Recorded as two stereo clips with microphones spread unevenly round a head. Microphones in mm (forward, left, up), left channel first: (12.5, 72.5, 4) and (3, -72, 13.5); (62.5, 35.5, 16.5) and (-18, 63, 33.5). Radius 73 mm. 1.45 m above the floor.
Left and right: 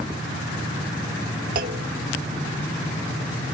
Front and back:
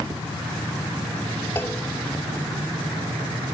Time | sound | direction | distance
1.6 | a clunk | 100° right | ?